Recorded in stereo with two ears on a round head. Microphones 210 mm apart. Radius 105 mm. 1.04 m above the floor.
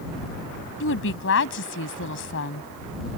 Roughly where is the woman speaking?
Left.